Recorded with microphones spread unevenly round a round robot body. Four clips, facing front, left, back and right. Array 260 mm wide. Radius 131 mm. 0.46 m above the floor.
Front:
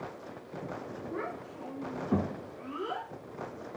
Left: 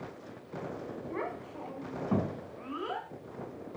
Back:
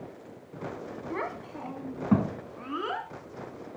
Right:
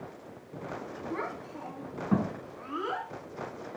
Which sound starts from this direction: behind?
A child speaking, at 1.1 s.